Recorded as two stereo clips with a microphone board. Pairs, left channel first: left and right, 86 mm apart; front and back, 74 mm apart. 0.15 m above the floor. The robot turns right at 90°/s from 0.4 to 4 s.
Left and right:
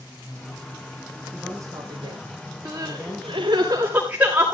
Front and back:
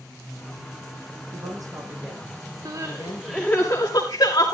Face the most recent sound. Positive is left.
turn(degrees=-15)